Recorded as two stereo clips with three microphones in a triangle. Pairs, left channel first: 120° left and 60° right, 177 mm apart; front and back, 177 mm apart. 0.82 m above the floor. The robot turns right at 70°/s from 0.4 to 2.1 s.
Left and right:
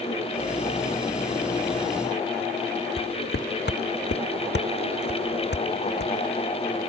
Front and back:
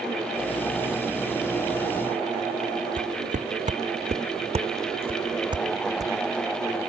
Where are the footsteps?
135° left; by 6.1 s 110° left.